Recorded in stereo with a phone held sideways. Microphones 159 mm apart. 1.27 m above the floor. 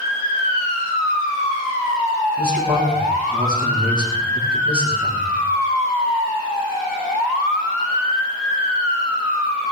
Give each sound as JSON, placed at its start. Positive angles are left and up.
{"t": 2.4, "sound": "a man speaking", "side_deg": -75, "distance_m": 9.0}